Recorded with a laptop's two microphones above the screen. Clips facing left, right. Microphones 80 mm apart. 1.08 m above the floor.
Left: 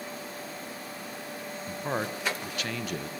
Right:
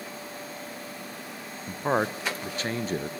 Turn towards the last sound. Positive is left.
turn(degrees=-35)  # may be behind; listen again after turning